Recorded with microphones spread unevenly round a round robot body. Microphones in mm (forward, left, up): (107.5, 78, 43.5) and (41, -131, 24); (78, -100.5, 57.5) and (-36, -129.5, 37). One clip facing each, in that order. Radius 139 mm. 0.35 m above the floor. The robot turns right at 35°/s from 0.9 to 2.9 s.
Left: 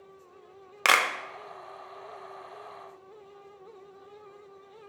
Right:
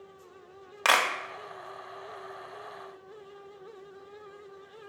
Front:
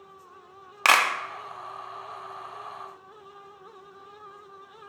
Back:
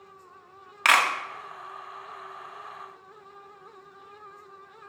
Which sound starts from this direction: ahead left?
A clap, at 0.8 s.